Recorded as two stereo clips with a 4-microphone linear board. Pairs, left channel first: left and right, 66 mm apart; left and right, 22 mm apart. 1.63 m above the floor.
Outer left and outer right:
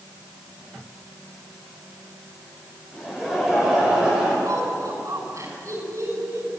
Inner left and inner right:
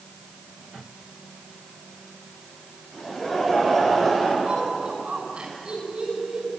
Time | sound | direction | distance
2.9 | laughter | 10° right (ahead or behind) | 8.5 m
4.5 | laughter | 55° right (ahead or behind) | 6.5 m